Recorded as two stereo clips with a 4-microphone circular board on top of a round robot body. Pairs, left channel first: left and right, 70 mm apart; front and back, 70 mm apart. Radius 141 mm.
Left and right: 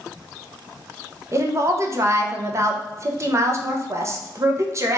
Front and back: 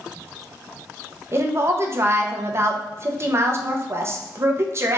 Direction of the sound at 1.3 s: 135° right.